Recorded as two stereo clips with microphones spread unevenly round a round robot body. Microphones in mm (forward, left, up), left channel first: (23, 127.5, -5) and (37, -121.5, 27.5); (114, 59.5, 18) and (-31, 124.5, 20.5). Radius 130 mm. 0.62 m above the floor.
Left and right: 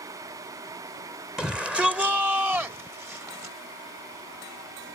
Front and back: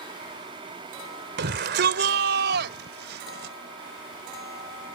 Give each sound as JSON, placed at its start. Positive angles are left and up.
{"t": 1.4, "sound": "a shout", "azimuth_deg": -175}